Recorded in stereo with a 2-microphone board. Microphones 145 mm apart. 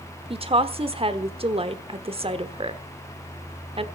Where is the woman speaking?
40° right (ahead or behind), 1.2 m.